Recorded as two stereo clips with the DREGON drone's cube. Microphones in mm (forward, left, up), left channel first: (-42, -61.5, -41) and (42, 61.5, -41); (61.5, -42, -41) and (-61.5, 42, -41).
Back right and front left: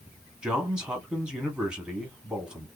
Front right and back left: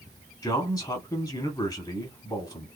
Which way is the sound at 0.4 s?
20° right.